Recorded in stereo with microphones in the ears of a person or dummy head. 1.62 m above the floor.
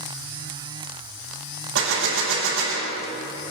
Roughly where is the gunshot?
Right.